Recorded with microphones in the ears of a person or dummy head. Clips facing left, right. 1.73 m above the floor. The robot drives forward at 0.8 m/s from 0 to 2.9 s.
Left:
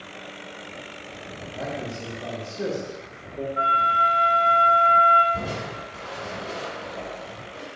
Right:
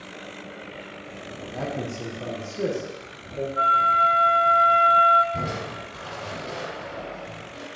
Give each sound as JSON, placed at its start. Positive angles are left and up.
{"t": 1.5, "sound": "a man speaking", "side_deg": -75, "distance_m": 1.4}
{"t": 3.6, "sound": "a flute", "side_deg": -25, "distance_m": 1.3}
{"t": 5.3, "sound": "crushing", "side_deg": -30, "distance_m": 3.5}